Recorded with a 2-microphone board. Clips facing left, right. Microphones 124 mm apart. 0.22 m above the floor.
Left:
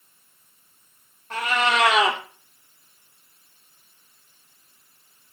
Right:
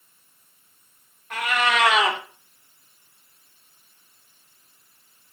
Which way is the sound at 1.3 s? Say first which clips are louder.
Left 1 dB; 30° left (ahead or behind).